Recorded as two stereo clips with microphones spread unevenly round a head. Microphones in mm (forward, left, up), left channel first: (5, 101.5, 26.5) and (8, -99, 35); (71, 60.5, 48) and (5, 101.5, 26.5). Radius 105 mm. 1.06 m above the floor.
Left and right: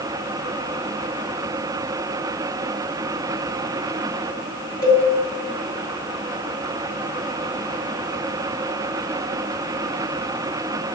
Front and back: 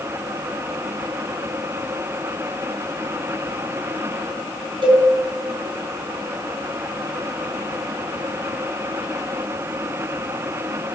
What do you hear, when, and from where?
4.8 s a cowbell: 135° left, 4 m